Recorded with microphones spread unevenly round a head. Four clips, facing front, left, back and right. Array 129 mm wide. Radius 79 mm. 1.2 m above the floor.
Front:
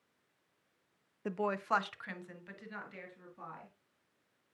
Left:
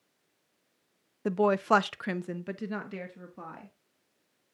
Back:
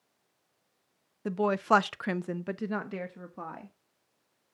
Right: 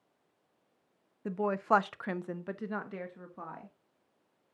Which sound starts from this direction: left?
A woman speaking, at 1.2 s.